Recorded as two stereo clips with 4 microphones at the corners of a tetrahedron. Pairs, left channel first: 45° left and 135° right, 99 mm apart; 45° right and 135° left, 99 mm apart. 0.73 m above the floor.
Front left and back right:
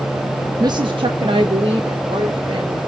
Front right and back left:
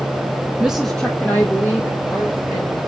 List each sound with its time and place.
0.6 s a woman speaking: 155° right, 0.6 m; by 2.8 s 110° right, 3 m